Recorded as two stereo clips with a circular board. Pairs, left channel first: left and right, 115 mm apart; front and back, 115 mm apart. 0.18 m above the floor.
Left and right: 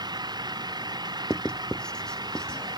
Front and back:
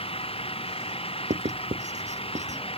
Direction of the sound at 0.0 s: 35° right.